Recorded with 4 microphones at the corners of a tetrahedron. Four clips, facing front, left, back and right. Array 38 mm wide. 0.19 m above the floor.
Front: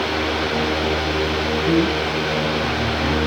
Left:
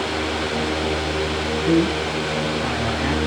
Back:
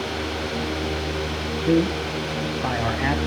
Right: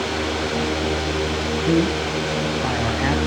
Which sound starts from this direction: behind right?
A man speaking, at 1.7 s.